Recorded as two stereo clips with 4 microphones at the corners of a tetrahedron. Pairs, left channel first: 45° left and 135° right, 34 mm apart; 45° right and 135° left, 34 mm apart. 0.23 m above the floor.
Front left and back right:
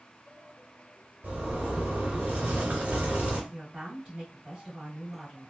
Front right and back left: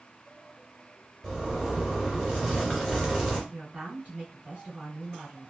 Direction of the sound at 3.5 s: Straight behind.